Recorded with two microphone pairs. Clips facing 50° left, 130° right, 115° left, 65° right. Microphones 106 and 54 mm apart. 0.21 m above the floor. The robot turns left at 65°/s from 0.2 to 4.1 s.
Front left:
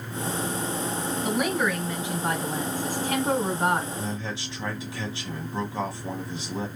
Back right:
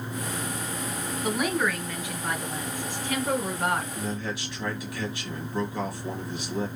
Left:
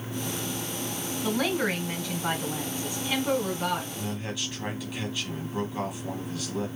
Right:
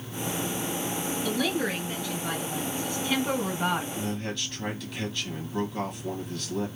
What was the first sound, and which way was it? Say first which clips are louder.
A woman speaking: even, left 2 dB; 155° left.